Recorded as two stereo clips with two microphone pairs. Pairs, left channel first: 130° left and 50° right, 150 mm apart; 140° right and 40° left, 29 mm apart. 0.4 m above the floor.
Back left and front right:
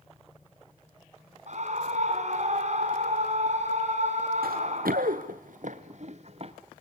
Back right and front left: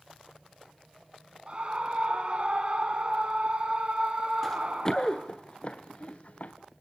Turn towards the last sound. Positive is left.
turn(degrees=-100)